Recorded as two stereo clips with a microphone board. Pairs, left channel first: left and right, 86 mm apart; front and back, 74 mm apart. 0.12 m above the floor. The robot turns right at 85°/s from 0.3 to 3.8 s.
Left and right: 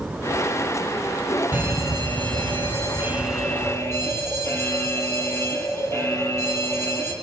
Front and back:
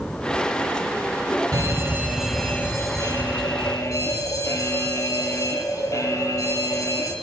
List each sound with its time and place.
1.5 s a fire alarm: 160° right, 5.5 m; by 7.1 s 35° left, 5.5 m